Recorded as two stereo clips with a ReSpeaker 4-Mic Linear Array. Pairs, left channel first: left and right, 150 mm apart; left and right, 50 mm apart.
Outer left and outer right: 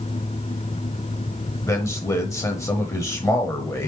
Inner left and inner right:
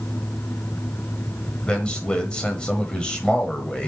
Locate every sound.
1.6 s a man speaking: 20° left (ahead or behind), 1.0 m